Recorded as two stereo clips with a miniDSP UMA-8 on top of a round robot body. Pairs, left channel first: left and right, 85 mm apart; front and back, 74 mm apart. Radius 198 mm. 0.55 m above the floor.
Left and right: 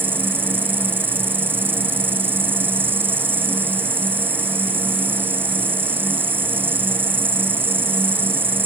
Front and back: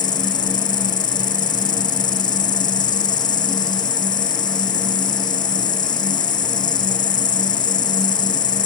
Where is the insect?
25° right.